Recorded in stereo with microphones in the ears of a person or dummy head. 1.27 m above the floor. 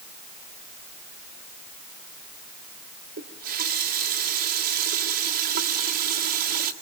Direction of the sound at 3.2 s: 50° right (ahead or behind).